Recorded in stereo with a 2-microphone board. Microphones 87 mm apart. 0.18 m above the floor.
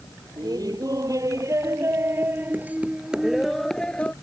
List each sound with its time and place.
0.4 s laughter: 50° right (ahead or behind); by 4.1 s 15° left (ahead or behind)